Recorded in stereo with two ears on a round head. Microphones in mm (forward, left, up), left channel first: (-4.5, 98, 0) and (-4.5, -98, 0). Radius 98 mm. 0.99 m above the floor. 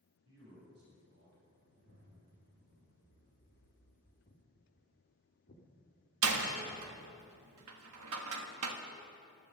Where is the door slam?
75° right (ahead or behind), 1.4 m.